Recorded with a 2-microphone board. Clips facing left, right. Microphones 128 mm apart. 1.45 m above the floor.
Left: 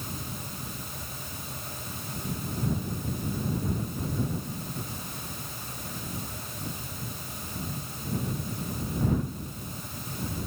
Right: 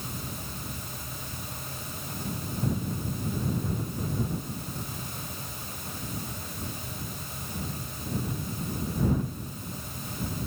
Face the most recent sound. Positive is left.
No sound to turn to.